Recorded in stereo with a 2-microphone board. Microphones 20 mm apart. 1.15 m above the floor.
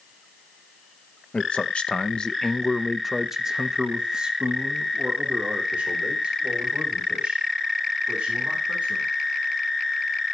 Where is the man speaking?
65° left (ahead or behind), 0.8 m; by 9.1 s 65° right (ahead or behind), 3.5 m.